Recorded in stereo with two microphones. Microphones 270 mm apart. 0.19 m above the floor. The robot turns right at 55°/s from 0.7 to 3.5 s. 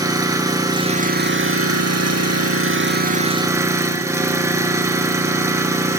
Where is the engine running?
165° right, 3 m; by 6.0 s 10° right, 3 m.